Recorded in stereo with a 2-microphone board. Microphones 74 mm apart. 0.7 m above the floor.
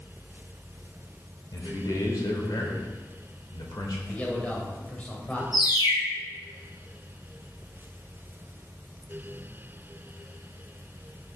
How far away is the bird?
About 4.5 m.